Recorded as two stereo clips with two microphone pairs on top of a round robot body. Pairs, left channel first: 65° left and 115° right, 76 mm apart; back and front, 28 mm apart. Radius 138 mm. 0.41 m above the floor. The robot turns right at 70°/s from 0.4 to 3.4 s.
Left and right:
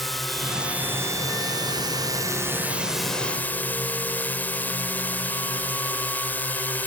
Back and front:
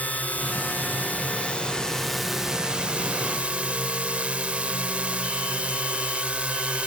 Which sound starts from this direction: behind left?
A drone, at 0.0 s.